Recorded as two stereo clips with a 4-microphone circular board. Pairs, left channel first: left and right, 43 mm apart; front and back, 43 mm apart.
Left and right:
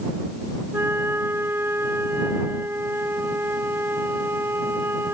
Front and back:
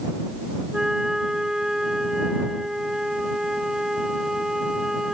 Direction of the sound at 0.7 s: 105° right.